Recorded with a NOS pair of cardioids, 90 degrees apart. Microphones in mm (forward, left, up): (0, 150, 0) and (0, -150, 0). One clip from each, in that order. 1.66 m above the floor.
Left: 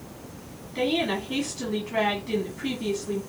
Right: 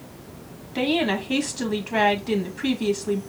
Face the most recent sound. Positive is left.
turn(degrees=-55)